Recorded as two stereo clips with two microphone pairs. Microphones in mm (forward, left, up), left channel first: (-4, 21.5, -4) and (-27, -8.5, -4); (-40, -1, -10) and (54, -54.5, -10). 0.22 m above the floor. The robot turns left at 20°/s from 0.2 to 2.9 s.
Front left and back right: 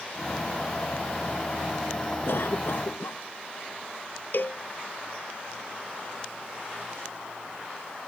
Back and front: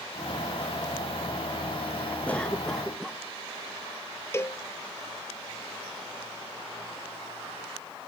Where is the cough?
75° left; by 3.2 s 60° left.